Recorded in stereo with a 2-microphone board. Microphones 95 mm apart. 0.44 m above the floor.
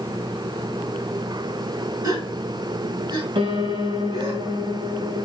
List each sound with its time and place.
2.0 s a gasp: 40° right (ahead or behind), 3.5 m
3.4 s a piano: 65° right (ahead or behind), 0.9 m